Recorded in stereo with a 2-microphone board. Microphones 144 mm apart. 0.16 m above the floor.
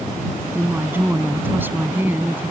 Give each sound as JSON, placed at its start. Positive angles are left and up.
{"t": 0.6, "sound": "a woman speaking", "side_deg": -15}